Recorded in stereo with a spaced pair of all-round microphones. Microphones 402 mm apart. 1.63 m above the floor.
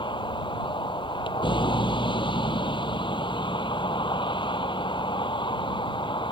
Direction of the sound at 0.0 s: 10° left (ahead or behind).